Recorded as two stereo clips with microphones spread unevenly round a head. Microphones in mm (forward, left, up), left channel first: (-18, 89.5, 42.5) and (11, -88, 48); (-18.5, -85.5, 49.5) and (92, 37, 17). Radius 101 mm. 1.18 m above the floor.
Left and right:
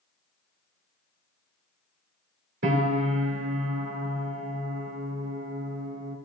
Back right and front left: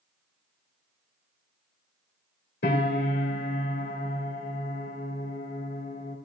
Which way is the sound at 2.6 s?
110° right.